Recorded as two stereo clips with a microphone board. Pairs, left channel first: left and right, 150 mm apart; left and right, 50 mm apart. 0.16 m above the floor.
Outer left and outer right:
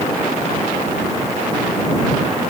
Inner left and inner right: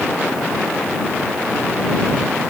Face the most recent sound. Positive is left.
No sound to turn to.